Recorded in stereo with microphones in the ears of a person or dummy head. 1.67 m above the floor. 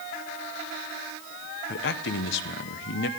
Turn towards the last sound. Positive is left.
turn(degrees=65)  # may be behind; listen again after turning